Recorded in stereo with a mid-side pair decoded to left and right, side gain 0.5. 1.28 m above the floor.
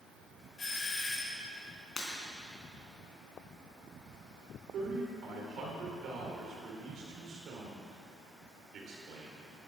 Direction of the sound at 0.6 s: 30° left.